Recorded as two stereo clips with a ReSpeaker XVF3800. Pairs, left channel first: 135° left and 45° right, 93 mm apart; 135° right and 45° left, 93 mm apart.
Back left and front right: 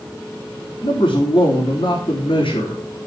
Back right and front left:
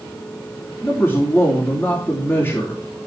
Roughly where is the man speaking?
Behind left.